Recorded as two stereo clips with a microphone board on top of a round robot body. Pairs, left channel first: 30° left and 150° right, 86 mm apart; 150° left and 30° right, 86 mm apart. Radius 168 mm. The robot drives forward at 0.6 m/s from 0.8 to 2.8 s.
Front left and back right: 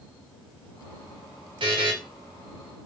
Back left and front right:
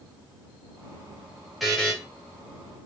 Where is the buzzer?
120° right, 0.7 m; by 1.9 s 135° right, 0.8 m.